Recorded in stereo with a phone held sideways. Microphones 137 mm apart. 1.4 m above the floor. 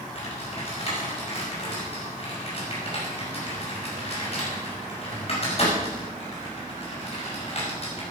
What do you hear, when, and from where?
0.1 s typing on a keyboard: 50° left (ahead or behind), 5.5 m